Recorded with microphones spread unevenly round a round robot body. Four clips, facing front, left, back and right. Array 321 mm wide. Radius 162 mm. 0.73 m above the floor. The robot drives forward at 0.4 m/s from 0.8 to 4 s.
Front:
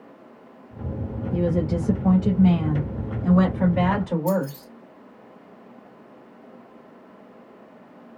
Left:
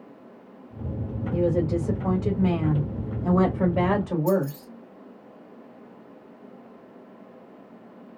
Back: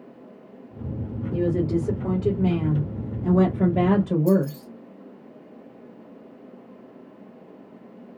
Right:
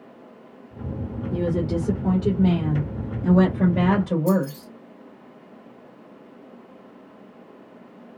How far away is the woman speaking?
About 2.5 m.